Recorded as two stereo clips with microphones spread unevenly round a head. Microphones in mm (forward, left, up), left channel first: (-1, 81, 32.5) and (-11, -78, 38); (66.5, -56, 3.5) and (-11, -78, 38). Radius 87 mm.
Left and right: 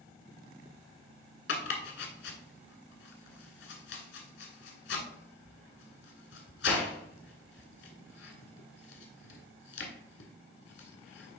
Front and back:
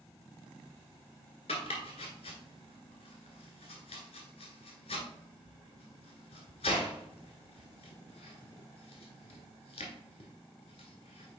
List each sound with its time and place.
1.5 s chopping: 70° left, 1.5 m